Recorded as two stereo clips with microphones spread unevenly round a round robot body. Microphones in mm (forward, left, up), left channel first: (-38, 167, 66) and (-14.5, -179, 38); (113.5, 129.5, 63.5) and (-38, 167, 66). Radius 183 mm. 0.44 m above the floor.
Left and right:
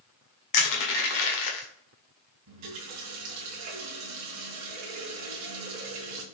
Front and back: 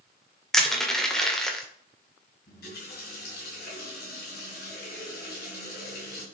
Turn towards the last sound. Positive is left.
turn(degrees=-40)